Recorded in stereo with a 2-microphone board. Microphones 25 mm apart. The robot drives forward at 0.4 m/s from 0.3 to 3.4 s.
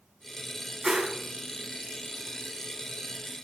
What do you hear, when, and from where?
0.8 s a whoosh: 25° right (ahead or behind), 0.9 m